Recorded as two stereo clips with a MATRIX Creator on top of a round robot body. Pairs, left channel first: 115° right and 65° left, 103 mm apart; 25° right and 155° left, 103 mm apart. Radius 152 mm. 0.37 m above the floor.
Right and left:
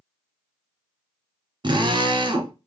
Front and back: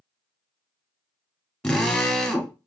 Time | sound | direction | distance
1.6 | a drill | 60° left | 1.4 m